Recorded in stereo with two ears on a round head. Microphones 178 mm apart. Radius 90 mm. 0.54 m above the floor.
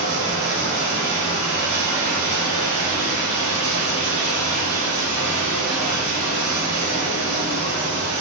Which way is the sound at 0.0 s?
60° right (ahead or behind).